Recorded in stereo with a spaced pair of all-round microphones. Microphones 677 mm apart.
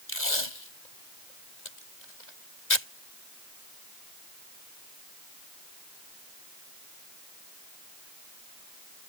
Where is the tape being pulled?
85° left.